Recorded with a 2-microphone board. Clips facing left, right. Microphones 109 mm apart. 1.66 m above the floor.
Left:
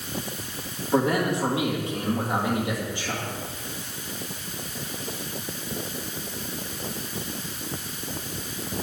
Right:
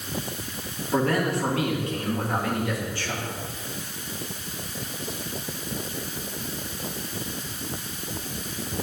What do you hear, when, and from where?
0.9 s a man speaking: 20° left (ahead or behind), 3 m